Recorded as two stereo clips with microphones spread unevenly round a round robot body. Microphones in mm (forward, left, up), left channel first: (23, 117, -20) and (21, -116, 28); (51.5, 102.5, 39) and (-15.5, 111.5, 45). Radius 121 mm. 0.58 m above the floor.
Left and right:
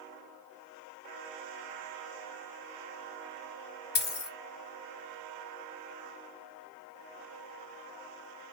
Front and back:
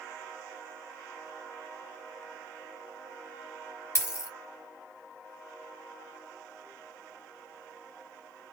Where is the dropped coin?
40° left, 1.9 m.